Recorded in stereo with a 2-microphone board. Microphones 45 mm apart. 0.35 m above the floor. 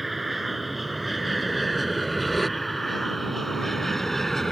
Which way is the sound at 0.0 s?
5° right (ahead or behind).